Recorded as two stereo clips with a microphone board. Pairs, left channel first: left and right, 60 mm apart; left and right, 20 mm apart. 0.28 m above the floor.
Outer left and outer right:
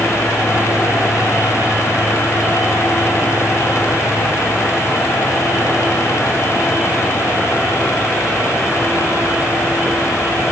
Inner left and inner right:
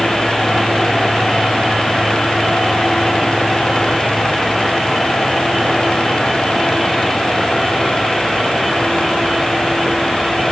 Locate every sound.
Only background noise.